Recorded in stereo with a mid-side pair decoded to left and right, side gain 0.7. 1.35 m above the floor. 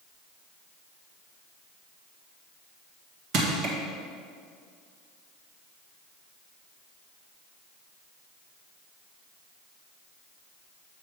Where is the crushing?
55° right, 1.4 m.